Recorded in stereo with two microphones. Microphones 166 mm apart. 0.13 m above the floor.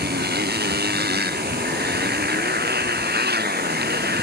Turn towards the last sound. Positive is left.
turn(degrees=-75)  # may be behind; listen again after turning